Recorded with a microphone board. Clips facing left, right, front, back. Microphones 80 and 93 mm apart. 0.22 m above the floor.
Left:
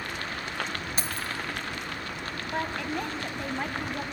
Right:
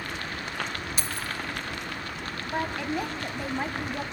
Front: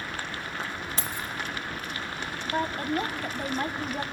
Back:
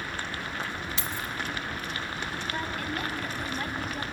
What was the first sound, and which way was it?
Keys jangling, 45° left.